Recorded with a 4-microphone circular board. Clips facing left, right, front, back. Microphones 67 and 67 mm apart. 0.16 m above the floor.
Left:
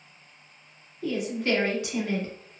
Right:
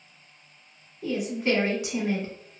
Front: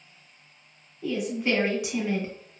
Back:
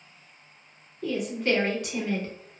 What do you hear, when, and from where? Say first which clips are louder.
1.0 s a woman speaking: right 1 dB, even; 55° right, 1.1 m